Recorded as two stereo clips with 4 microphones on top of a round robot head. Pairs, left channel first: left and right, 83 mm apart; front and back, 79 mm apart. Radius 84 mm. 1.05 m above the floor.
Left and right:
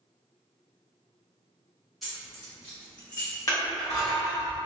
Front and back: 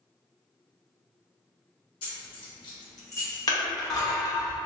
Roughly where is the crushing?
Ahead left.